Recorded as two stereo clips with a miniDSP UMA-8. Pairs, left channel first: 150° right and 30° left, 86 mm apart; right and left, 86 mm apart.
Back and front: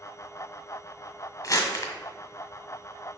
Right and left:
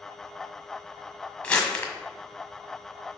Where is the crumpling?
160° right, 1.5 m.